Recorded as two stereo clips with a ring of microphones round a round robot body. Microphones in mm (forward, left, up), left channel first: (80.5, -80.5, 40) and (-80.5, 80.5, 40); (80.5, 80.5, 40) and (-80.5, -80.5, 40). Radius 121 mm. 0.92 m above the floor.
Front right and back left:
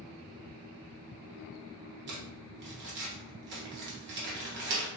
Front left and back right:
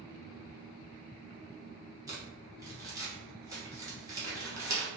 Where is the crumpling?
155° left, 1.0 m.